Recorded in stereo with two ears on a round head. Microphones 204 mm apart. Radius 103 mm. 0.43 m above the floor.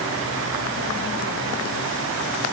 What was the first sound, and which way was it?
Only background noise.